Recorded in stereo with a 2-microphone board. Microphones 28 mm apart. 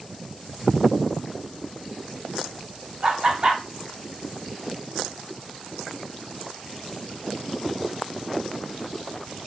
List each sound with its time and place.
3.0 s laughter: 30° right (ahead or behind), 1.3 m